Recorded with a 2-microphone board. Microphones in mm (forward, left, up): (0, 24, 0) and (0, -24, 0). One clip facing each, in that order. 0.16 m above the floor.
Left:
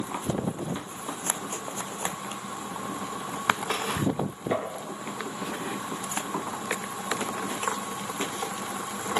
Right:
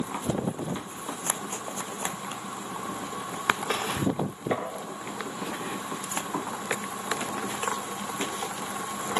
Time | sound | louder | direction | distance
4.5 | tapping | left 1 dB | 10° right (ahead or behind) | 3 m